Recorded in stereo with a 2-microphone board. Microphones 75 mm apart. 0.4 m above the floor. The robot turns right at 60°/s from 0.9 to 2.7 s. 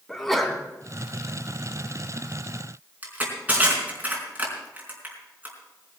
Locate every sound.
0.1 s a sneeze: 5° left (ahead or behind), 3.5 m
3.0 s crushing: 20° right (ahead or behind), 4.5 m